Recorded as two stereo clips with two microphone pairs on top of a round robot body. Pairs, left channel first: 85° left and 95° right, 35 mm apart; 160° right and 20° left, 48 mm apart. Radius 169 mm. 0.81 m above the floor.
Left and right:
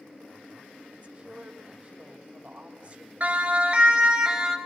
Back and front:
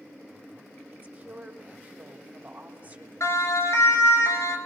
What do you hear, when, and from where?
0.9 s a woman speaking: 35° right, 3 m
3.2 s a siren: 145° right, 4 m; by 4.6 s 170° right, 4.5 m